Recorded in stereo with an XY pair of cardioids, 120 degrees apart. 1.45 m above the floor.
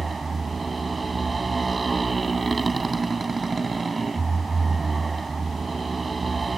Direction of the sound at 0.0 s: 25° right.